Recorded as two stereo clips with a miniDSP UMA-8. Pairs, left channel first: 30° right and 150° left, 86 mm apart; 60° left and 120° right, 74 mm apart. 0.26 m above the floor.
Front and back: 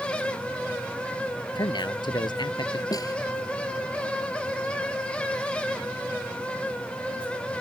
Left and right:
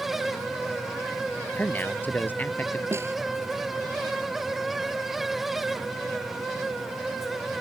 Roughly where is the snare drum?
Right.